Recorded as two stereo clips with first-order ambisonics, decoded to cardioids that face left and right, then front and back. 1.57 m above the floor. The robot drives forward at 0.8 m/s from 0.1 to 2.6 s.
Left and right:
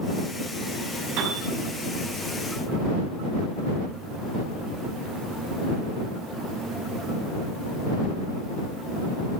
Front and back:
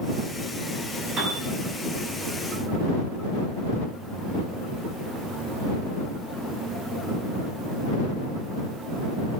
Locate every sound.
1.2 s a piano: 120° right, 6.5 m; by 1.5 s 125° right, 6.5 m